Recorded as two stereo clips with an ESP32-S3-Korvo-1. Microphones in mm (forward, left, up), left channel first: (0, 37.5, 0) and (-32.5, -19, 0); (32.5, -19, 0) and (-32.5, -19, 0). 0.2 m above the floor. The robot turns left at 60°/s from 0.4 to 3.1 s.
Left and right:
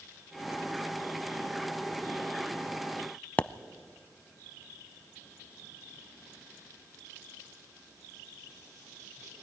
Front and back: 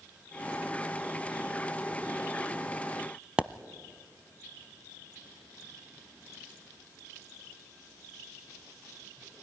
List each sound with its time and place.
3.4 s a pop: 115° left, 0.5 m